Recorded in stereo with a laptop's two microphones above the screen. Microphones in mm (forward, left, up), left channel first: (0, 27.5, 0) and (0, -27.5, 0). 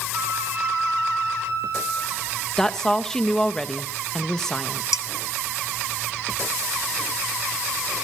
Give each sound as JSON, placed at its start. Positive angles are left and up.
{"t": 0.1, "sound": "a flute", "side_deg": -50, "distance_m": 10.0}
{"t": 2.6, "sound": "a woman speaking", "side_deg": 10, "distance_m": 0.8}
{"t": 4.9, "sound": "dishes clattering", "side_deg": 90, "distance_m": 1.3}